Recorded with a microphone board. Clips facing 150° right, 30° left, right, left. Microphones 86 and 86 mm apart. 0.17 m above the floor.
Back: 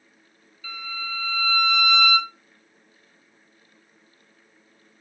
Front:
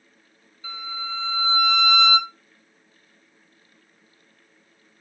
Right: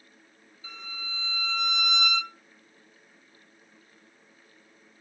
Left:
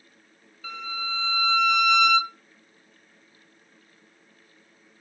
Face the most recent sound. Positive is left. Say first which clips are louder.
# front 1 dB, left 10 dB
turn(degrees=100)